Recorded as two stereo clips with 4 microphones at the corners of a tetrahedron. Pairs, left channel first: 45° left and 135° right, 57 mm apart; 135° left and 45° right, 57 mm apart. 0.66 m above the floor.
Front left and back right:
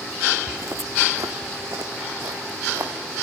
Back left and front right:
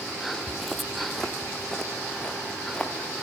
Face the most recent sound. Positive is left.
turn(degrees=-150)